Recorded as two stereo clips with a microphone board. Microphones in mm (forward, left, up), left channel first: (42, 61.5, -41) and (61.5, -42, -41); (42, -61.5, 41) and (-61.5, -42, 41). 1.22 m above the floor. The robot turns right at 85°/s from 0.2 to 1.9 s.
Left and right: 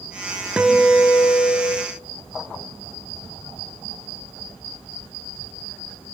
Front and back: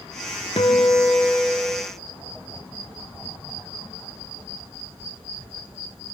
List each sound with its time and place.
0.6 s a guitar: straight ahead, 1.7 m; by 1.9 s 110° left, 1.7 m